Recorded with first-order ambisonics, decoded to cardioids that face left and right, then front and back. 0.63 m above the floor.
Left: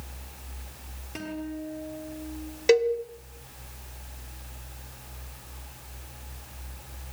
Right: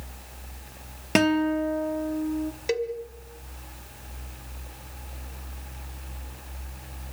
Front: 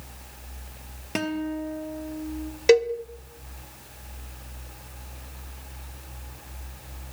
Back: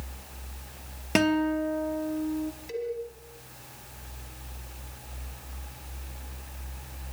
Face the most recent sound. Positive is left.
turn(degrees=20)